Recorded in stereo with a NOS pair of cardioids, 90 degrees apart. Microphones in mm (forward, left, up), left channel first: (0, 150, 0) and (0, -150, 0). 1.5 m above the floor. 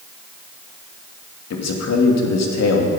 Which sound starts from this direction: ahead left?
A man speaking, at 1.5 s.